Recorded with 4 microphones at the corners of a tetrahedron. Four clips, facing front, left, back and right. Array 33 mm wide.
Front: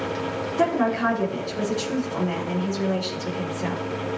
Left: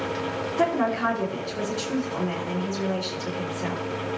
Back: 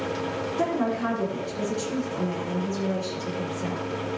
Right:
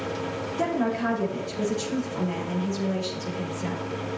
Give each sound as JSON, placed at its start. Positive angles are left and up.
{"t": 0.6, "sound": "a woman speaking", "azimuth_deg": 45, "distance_m": 5.0}